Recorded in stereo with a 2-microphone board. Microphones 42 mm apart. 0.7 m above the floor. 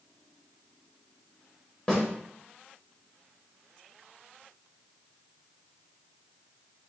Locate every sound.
1.9 s a snare drum: 15° left (ahead or behind), 3 m